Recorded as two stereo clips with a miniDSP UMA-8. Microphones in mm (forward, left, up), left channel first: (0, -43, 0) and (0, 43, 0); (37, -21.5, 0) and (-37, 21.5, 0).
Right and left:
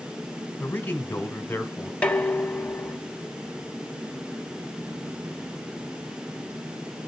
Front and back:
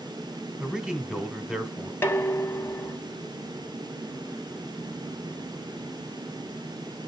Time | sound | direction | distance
0.6 | a man speaking | 135° right | 1.2 m
2.0 | dishes clattering | 35° right | 0.8 m